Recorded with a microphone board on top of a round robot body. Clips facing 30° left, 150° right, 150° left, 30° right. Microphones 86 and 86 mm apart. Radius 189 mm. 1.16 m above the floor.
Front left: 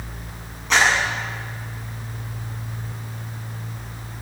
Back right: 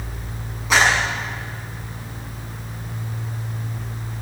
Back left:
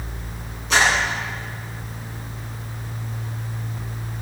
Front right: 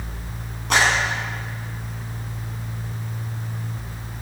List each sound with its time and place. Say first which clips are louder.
0.7 s a clap: back right 1 dB, even; 65° right, 8 m